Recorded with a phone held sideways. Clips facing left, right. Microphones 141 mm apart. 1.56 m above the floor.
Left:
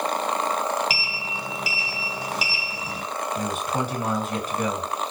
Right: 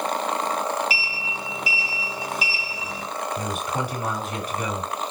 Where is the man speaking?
40° left (ahead or behind), 1.7 m.